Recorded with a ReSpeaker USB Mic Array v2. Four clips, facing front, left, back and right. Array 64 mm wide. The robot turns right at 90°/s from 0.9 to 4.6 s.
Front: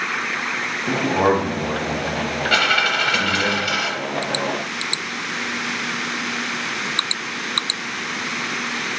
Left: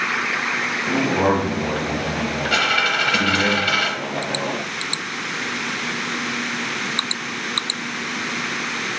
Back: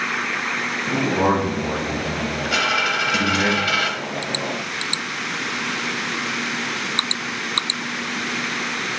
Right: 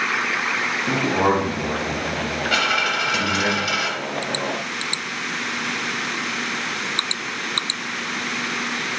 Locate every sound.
0.9 s a man speaking: 55° right, 1.2 m; by 3.5 s straight behind, 1.2 m
2.5 s a dropped coin: straight ahead, 0.7 m; by 3.9 s 125° left, 0.7 m